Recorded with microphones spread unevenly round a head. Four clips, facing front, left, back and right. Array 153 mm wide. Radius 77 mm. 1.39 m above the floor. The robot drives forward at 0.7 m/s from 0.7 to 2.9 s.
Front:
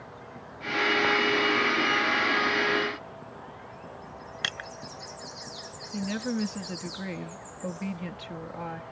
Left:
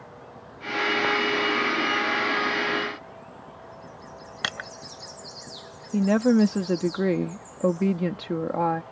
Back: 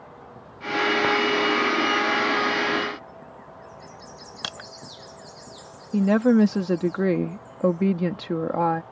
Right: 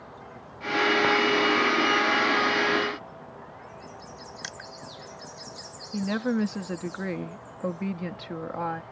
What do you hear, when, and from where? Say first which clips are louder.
4.4 s crushing: left 12 dB, front 1 dB; 110° left
5.9 s a woman speaking: left 7 dB, back 13 dB; 145° left